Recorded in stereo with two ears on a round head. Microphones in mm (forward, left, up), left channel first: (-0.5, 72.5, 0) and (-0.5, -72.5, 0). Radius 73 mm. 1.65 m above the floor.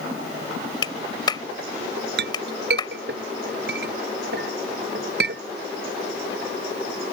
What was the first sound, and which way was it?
A clap, 30° left (ahead or behind).